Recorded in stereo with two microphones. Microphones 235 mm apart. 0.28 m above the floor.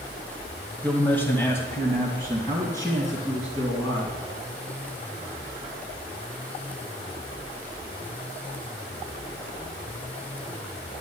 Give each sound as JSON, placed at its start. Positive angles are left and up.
{"t": 0.8, "sound": "a man speaking", "side_deg": 5, "distance_m": 1.3}